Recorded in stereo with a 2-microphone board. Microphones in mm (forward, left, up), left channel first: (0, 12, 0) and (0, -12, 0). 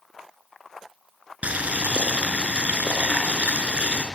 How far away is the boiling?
About 5 m.